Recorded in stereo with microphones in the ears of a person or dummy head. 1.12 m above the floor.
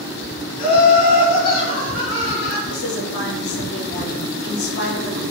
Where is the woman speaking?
55° left (ahead or behind), 0.8 m.